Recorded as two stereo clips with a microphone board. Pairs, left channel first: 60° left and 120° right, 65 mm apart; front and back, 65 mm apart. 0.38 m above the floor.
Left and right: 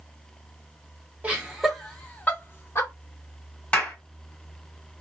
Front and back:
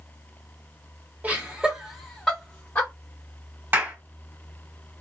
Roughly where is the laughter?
Behind.